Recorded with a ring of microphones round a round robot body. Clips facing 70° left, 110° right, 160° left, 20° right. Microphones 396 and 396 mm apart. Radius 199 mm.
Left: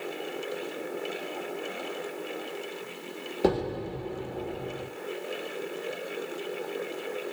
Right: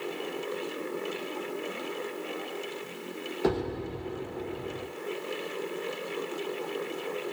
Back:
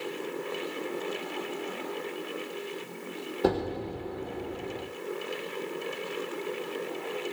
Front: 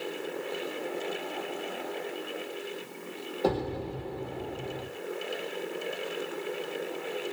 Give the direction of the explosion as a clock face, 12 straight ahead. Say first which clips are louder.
Left 2 dB, back 2 dB; 9 o'clock.